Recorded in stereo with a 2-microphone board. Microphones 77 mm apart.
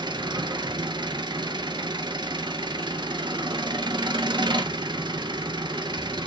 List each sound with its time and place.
0.0 s an engine running: 75° right (ahead or behind), 1.1 m